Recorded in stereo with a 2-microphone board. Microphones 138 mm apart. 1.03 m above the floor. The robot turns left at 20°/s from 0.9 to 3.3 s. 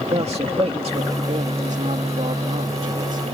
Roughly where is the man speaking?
Ahead right.